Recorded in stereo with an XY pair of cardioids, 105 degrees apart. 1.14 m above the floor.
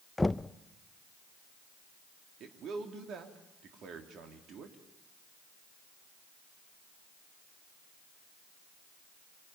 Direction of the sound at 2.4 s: 65° right.